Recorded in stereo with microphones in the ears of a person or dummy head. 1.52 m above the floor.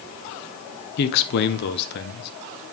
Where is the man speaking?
60° left (ahead or behind), 1.1 m.